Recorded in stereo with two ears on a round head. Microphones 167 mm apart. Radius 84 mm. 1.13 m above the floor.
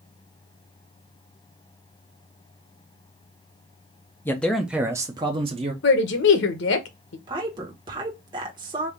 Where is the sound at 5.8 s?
65° left (ahead or behind), 1.0 m.